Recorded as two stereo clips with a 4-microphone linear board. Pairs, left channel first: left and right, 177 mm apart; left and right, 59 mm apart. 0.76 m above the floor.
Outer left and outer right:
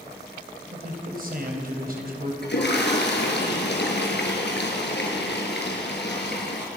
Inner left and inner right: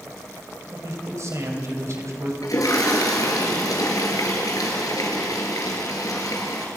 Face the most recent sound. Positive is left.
turn(degrees=80)